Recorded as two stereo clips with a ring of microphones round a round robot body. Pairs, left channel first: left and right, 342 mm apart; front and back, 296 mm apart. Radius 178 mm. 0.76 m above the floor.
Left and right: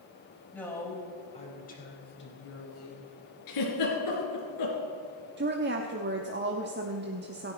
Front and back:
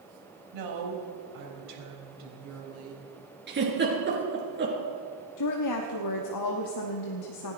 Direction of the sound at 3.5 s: 125° left.